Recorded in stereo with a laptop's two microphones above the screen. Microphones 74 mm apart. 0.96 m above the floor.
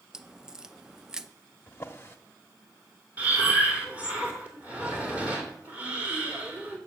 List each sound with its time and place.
0.1 s a crack: 10° right (ahead or behind), 0.6 m
1.7 s a drawer: 30° left (ahead or behind), 0.9 m
3.2 s breathing: 20° right (ahead or behind), 3 m